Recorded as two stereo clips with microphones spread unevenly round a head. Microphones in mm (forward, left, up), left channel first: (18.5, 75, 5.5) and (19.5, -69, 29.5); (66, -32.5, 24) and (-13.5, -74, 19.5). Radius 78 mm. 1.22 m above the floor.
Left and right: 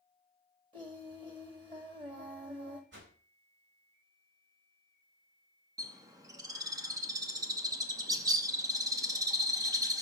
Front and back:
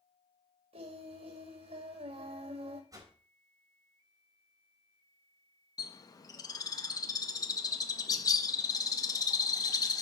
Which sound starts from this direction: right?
A whoosh, at 2.9 s.